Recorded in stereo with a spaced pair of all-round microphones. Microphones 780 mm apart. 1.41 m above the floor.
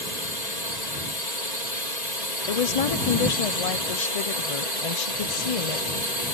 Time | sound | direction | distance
0.0 | a drone | 60° left (ahead or behind) | ?
2.5 | a woman speaking | 50° left (ahead or behind) | ?